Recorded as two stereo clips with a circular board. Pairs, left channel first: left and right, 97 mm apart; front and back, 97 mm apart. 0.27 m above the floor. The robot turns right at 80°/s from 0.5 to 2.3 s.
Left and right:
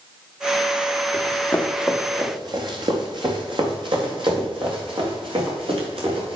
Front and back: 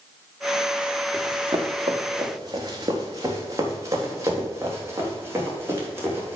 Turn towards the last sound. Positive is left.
turn(degrees=-115)